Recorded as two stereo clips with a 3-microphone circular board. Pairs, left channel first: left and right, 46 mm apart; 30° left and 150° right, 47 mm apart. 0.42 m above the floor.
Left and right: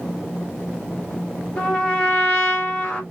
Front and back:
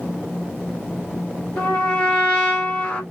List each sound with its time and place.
1.6 s a trumpet: 50° left, 1.5 m